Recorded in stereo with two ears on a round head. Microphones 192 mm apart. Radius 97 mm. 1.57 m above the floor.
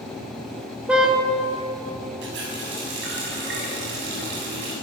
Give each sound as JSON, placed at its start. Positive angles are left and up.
{"t": 0.9, "sound": "a car horn", "side_deg": -5, "distance_m": 3.0}
{"t": 2.2, "sound": "a running tap", "side_deg": -50, "distance_m": 7.0}